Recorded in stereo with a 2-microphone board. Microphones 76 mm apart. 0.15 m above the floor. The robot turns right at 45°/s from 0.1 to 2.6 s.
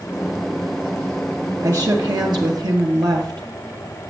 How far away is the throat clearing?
I don't hear throat clearing.